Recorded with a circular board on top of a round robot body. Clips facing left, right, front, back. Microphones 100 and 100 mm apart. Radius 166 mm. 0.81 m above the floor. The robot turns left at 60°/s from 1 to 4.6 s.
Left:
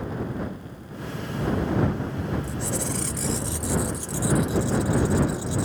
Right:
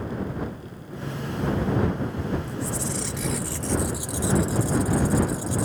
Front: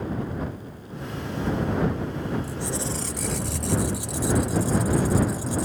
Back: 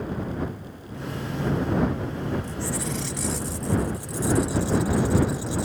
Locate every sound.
2.4 s a squeak: 85° left; by 5.7 s 45° right